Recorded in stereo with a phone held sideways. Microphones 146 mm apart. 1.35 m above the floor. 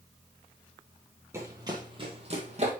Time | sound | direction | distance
1.3 | running footsteps | 20° right (ahead or behind) | 1.7 m